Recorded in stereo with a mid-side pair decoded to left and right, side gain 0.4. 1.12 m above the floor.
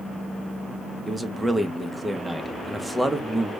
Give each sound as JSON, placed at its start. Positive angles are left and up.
{"t": 1.1, "sound": "a man speaking", "azimuth_deg": -10, "distance_m": 0.9}